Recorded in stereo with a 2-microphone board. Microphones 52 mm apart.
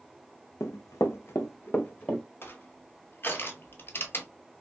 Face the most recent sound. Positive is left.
turn(degrees=45)  # may be behind; listen again after turning